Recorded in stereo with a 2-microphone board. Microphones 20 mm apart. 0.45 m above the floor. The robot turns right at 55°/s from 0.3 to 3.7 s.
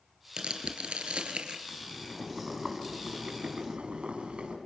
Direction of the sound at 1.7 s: 160° left.